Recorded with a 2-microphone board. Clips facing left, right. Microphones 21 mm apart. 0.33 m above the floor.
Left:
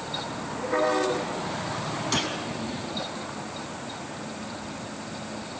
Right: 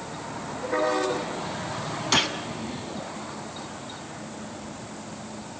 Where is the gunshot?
25° right (ahead or behind), 1.7 m.